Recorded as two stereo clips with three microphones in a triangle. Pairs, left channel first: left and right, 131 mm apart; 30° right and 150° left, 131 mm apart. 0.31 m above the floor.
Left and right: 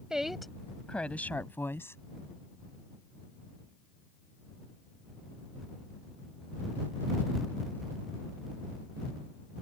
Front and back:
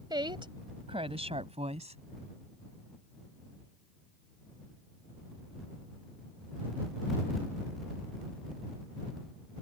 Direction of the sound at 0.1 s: 175° right.